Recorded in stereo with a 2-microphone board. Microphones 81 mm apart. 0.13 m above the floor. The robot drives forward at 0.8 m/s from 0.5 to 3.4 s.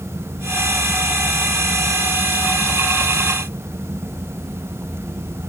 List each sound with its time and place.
Only background noise.